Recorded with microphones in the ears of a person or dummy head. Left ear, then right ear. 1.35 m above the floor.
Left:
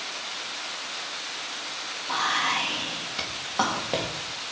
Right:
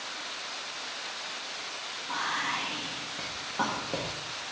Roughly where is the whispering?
Left.